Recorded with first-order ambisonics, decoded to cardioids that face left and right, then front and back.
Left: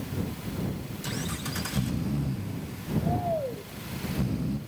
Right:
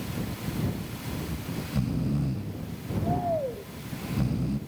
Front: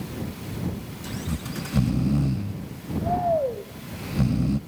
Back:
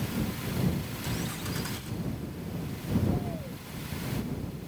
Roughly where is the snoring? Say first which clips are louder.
Left 3 dB, front 3 dB; ahead.